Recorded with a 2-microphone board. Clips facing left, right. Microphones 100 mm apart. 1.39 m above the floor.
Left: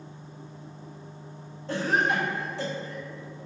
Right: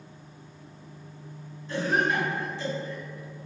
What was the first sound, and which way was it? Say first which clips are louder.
A cough: even; 75° left (ahead or behind).